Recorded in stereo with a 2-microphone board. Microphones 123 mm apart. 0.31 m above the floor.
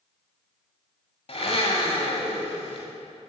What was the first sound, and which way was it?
A blender, 55° left (ahead or behind).